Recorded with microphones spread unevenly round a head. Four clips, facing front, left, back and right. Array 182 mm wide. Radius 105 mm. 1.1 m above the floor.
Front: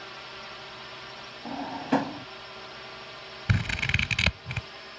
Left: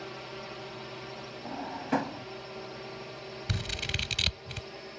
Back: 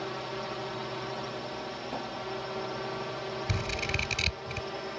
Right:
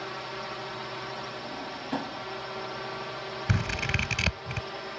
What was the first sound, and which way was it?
A drone, 170° right.